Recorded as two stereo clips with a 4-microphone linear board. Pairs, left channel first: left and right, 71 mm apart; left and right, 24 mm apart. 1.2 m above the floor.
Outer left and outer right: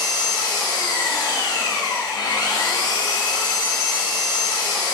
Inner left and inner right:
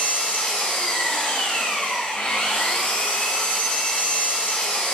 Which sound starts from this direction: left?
An engine running, at 0.0 s.